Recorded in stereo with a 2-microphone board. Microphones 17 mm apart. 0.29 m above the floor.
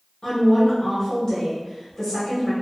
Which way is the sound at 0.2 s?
30° left (ahead or behind).